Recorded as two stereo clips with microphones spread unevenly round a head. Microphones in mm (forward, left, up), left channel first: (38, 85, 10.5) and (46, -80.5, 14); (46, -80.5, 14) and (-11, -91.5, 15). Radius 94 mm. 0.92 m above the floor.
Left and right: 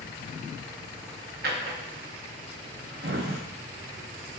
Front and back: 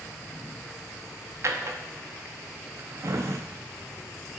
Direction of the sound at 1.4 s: 130° right.